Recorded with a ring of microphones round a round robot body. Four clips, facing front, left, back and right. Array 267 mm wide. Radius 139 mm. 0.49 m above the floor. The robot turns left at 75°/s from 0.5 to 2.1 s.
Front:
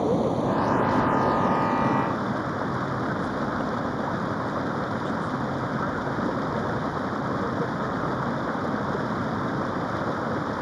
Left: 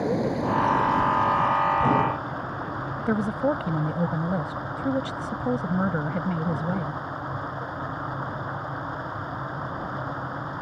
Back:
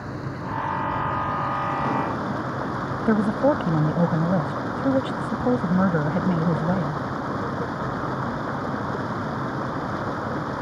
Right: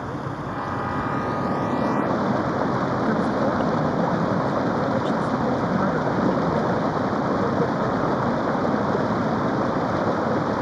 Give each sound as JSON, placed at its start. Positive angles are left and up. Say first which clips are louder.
{"t": 0.0, "sound": "running water", "louder": "left 5 dB, front 10 dB", "azimuth_deg": 35}
{"t": 3.1, "sound": "a woman speaking", "louder": "left 1 dB, back 8 dB", "azimuth_deg": 170}